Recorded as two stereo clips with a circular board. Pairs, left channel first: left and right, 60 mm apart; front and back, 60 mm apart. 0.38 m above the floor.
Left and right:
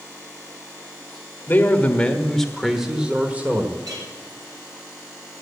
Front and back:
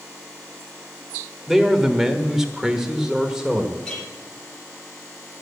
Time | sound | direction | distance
1.5 | a man speaking | 95° left | 1.4 m
3.9 | a clink | 75° right | 5 m